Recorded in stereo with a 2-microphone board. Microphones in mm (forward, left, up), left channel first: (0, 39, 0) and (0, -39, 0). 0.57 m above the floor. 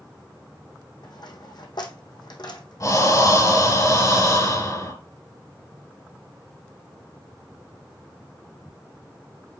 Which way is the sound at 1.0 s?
65° left (ahead or behind).